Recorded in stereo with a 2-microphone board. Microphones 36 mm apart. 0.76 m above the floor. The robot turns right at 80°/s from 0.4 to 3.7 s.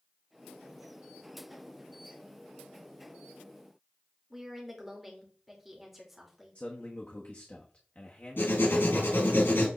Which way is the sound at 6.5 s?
40° left (ahead or behind).